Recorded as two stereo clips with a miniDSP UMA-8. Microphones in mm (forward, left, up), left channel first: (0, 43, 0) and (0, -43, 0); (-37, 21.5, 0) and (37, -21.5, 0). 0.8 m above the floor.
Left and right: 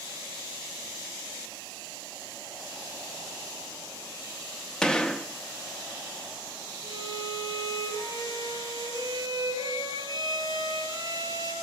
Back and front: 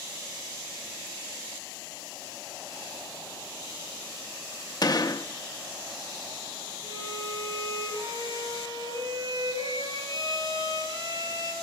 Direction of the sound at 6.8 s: 50° right.